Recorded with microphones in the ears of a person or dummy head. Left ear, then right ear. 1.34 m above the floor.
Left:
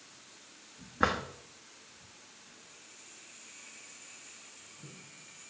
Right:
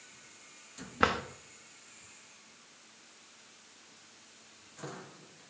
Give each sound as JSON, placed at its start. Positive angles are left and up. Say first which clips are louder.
{"t": 1.0, "sound": "a drawer", "louder": "right 1 dB", "side_deg": -15, "distance_m": 1.1}